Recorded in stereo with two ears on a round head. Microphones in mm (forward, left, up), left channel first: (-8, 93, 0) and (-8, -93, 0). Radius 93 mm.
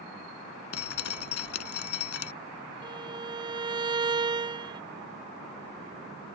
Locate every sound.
0.7 s dripping: 70° left (ahead or behind)
2.8 s a violin: 20° right (ahead or behind)